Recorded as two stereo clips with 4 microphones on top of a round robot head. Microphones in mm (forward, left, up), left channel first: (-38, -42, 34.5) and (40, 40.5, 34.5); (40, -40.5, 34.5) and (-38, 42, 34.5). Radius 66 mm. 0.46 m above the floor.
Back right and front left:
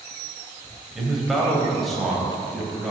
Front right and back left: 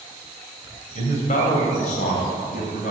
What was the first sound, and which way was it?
A man speaking, 40° right.